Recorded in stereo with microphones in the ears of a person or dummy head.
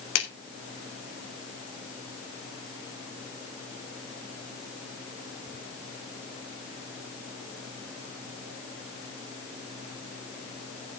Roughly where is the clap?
Left.